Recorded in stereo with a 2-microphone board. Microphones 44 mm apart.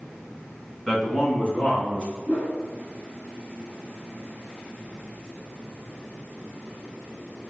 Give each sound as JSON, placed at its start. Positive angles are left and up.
{"t": 0.9, "sound": "a man speaking", "side_deg": 10, "distance_m": 1.8}
{"t": 2.3, "sound": "a whoosh", "side_deg": 45, "distance_m": 2.0}